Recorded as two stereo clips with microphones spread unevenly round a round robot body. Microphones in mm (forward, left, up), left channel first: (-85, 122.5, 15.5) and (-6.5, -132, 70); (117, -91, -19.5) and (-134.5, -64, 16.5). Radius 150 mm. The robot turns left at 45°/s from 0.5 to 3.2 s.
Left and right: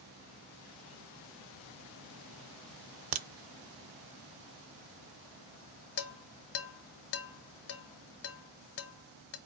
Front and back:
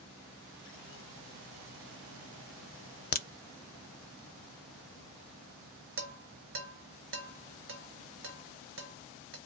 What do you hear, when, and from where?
3.1 s a crack: 60° right, 0.5 m; by 3.3 s 65° right, 0.5 m
6.0 s dishes clattering: 120° left, 1.2 m